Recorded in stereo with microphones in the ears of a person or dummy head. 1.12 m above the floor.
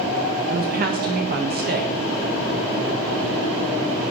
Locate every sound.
0.5 s a woman speaking: 45° right (ahead or behind), 1.3 m